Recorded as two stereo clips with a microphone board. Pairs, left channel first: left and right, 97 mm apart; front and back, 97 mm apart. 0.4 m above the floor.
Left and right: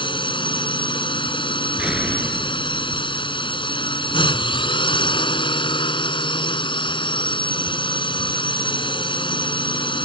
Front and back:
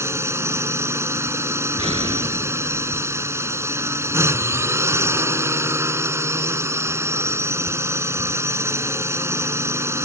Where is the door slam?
170° right.